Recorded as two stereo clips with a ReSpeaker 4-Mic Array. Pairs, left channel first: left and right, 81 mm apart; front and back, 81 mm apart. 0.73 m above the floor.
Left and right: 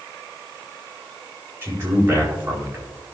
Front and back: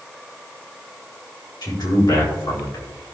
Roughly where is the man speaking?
Ahead right.